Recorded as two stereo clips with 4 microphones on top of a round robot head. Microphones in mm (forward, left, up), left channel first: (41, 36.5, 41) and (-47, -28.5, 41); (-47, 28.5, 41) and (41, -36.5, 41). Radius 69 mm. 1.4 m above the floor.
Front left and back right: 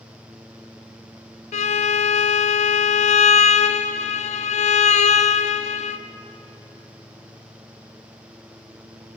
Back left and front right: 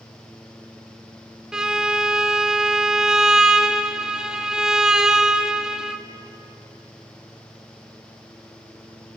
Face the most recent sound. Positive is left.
turn(degrees=50)